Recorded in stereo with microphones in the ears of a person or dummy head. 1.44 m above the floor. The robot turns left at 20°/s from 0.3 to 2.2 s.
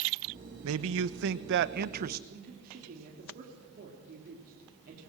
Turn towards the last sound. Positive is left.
turn(degrees=-50)  # may be behind; listen again after turning